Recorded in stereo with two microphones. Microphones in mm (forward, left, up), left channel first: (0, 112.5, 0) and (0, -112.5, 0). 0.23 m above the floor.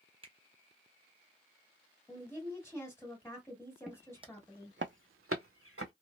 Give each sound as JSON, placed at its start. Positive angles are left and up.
{"t": 0.2, "sound": "a finger snap", "side_deg": -25, "distance_m": 0.8}
{"t": 2.1, "sound": "a woman speaking", "side_deg": 10, "distance_m": 1.5}
{"t": 3.9, "sound": "footsteps", "side_deg": -5, "distance_m": 0.5}